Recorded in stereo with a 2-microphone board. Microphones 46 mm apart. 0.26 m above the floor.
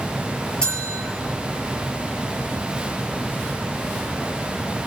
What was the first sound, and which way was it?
A bell, 25° left (ahead or behind).